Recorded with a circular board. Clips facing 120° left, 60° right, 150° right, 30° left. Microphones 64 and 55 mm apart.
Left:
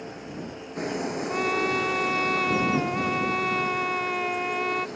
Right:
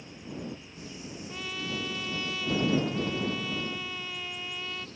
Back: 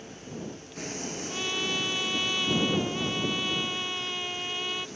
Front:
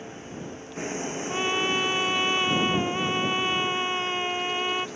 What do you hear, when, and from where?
0.0 s a vehicle: 95° left
1.3 s a trumpet: 85° left